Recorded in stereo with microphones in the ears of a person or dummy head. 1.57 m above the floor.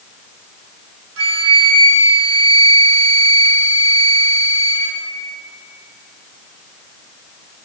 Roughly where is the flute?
Right.